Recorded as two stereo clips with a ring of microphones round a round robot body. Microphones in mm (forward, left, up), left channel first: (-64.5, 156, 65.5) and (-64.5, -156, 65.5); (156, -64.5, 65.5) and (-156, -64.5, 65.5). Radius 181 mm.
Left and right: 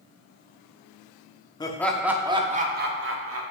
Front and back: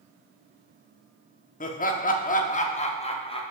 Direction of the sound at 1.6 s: 30° left.